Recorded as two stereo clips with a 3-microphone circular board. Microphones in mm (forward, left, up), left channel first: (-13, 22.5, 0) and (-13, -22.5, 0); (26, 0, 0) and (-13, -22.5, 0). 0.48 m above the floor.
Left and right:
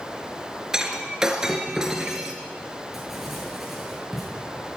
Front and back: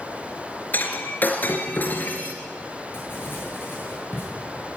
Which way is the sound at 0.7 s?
15° right.